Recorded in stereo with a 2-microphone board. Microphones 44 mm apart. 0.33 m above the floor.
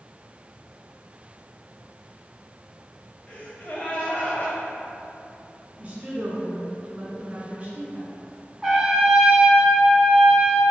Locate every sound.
3.3 s a gasp: 40° left (ahead or behind), 0.9 m
5.8 s a woman speaking: 35° right (ahead or behind), 1.2 m
8.6 s a trumpet: 10° right (ahead or behind), 0.8 m